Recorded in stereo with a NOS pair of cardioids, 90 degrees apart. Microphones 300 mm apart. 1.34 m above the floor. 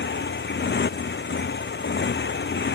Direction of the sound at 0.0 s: 35° left.